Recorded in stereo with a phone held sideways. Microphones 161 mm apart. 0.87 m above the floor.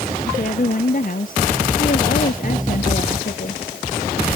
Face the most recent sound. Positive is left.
turn(degrees=55)  # may be behind; listen again after turning